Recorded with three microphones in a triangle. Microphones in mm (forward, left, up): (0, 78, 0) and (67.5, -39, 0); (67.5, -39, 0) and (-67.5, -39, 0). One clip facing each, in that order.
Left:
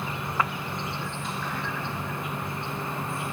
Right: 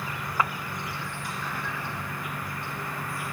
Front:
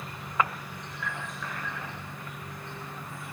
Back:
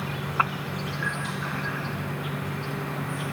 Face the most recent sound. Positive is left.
turn(degrees=-175)